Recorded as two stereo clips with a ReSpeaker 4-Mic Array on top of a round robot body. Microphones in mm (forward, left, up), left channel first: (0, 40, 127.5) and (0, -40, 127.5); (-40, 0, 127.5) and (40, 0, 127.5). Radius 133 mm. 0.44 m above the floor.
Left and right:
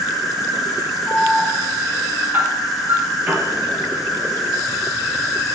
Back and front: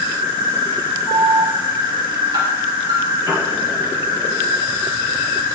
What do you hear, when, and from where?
0.0 s an insect: 5° right, 7 m
1.1 s an alarm: 25° right, 7.5 m
3.3 s a piano: 30° right, 6 m